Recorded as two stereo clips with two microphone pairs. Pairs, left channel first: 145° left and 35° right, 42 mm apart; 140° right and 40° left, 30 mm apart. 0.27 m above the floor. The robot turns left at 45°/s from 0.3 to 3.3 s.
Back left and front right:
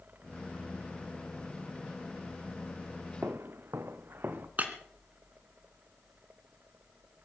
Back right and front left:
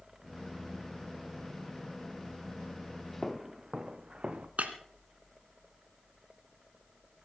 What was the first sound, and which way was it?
Footsteps, 50° right.